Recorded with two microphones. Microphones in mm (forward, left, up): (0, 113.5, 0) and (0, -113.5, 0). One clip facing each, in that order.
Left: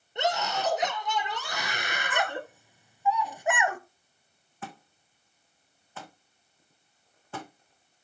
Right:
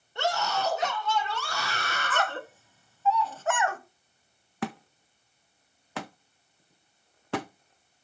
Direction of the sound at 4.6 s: 85° right.